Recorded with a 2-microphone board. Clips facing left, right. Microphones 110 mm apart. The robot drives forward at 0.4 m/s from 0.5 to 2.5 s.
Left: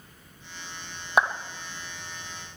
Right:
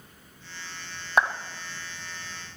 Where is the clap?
10° left (ahead or behind), 1.1 m.